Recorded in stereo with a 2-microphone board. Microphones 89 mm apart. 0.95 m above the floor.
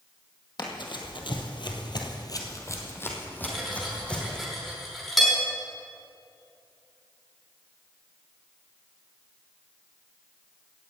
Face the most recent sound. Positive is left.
turn(degrees=0)  # may be behind; listen again after turning